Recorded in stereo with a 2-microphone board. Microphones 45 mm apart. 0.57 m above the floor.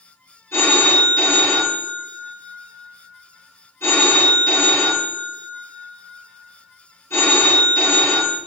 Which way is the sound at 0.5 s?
70° left (ahead or behind).